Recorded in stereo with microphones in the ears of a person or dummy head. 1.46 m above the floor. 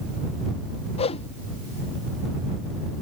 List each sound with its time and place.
1.0 s a whoosh: 30° left (ahead or behind)